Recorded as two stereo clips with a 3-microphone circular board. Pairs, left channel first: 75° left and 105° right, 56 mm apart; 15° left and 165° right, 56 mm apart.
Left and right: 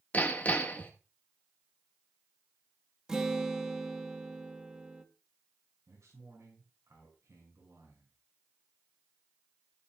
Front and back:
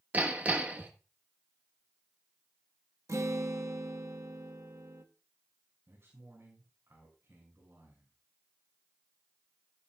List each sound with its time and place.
0.1 s hammering: 135° left, 1.3 m
3.1 s a guitar: 175° left, 1.3 m
5.9 s a man speaking: 125° right, 6 m